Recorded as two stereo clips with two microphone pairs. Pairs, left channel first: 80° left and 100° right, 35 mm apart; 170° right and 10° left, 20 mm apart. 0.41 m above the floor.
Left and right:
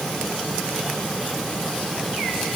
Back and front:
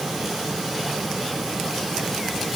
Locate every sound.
Only background noise.